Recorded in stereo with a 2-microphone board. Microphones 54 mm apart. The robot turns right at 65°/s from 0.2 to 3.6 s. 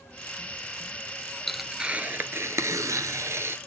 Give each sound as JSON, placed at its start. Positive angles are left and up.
{"t": 1.5, "sound": "tearing paper", "azimuth_deg": 175, "distance_m": 1.1}